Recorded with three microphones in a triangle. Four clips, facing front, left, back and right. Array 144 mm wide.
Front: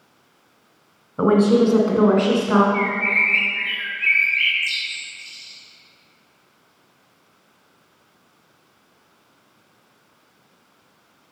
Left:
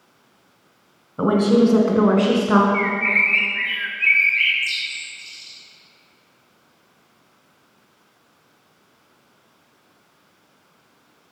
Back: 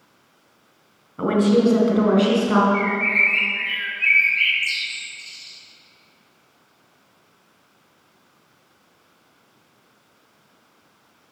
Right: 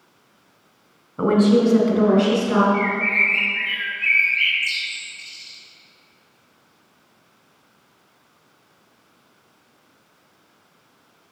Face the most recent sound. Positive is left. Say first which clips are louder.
# even, even
turn(degrees=110)